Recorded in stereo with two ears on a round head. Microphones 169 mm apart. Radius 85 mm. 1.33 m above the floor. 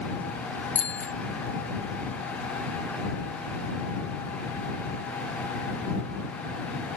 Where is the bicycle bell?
10° left (ahead or behind).